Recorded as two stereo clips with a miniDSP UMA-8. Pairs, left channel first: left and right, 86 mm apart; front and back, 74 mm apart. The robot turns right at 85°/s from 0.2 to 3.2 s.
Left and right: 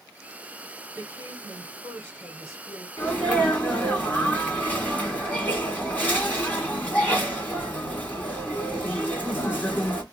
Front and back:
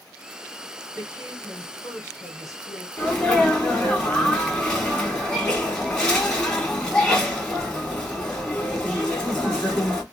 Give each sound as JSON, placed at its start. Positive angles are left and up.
{"t": 1.0, "sound": "a woman speaking", "azimuth_deg": -135, "distance_m": 1.6}
{"t": 3.0, "sound": "a sneeze", "azimuth_deg": 45, "distance_m": 1.3}